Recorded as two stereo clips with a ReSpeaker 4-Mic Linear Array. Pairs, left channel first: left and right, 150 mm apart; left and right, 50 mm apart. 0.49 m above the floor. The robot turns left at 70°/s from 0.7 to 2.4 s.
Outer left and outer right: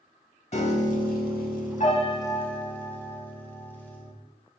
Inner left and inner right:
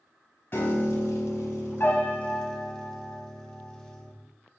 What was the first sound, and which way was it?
A piano, 130° left.